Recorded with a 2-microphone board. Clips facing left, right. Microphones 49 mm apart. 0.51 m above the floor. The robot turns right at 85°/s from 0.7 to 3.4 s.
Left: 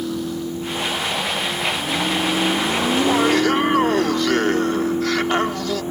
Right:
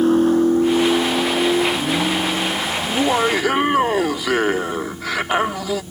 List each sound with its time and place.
0.0 s a vehicle: 40° right (ahead or behind); by 5.9 s 70° left (ahead or behind)
2.8 s laughter: 25° right (ahead or behind); by 5.8 s 10° right (ahead or behind)